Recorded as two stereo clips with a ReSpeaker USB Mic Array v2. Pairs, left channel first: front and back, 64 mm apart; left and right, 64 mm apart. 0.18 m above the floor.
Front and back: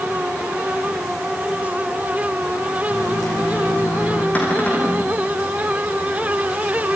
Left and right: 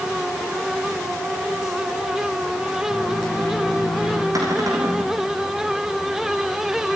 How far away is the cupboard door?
About 6 m.